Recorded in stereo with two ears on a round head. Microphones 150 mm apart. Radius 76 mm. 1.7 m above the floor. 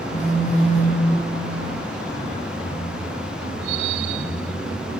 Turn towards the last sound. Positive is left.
turn(degrees=40)  # may be behind; listen again after turning